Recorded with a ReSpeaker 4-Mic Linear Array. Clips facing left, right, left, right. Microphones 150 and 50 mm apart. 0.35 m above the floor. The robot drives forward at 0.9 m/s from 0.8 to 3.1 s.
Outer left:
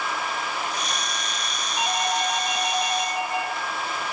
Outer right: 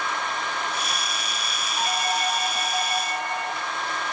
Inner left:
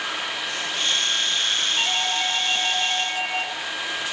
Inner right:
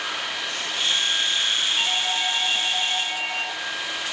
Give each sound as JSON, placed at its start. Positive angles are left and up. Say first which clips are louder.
{"t": 1.8, "sound": "a doorbell", "louder": "outer left 1 dB, inner left 1 dB", "side_deg": 15, "distance_m": 3.5}